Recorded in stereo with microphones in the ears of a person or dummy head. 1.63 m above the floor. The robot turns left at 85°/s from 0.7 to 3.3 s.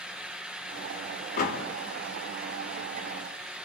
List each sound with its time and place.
1.4 s a door slam: 40° left (ahead or behind), 3.5 m; by 1.6 s 60° left (ahead or behind), 3.5 m